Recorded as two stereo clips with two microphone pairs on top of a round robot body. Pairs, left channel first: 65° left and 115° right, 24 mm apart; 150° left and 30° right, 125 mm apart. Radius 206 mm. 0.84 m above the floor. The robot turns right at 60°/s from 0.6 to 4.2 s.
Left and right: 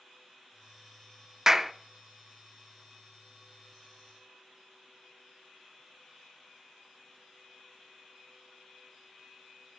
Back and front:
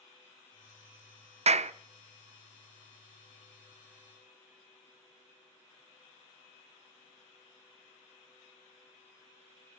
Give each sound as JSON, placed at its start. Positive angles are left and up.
{"t": 1.5, "sound": "a clap", "azimuth_deg": -50, "distance_m": 0.6}